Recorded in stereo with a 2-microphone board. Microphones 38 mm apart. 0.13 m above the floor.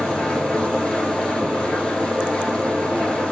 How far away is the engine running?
About 4.5 m.